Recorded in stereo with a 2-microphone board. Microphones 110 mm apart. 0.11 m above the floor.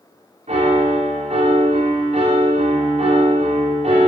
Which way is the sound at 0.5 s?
70° right (ahead or behind).